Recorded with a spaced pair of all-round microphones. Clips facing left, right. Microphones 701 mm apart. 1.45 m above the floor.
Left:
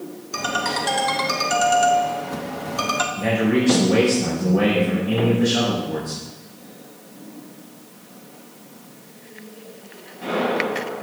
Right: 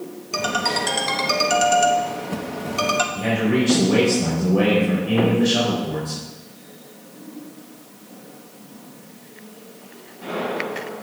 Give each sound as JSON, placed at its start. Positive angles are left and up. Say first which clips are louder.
{"t": 0.3, "sound": "a ringtone", "louder": "right 2 dB", "side_deg": -55, "distance_m": 1.2}
{"t": 3.1, "sound": "a man speaking", "louder": "left 1 dB", "side_deg": -75, "distance_m": 4.0}